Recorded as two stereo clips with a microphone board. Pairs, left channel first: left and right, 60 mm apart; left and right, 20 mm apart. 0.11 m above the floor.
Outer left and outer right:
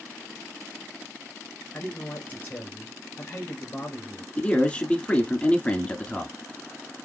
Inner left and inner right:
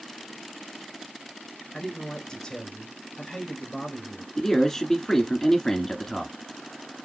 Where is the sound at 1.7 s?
35° left (ahead or behind), 1.7 m.